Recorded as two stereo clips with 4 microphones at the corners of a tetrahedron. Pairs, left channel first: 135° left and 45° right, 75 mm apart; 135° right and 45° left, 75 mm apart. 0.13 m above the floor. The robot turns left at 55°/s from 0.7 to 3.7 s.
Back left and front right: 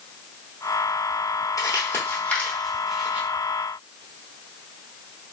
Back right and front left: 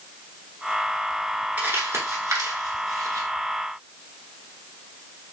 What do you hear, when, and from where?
1.6 s crumpling: 115° left, 1.2 m; by 3.3 s 20° left, 1.2 m